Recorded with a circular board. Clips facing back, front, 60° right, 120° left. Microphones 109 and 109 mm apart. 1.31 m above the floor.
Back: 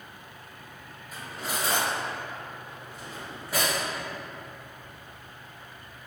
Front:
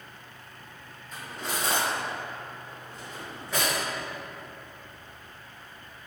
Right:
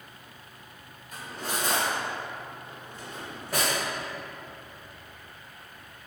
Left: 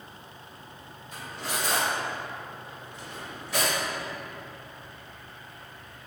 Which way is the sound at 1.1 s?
100° right.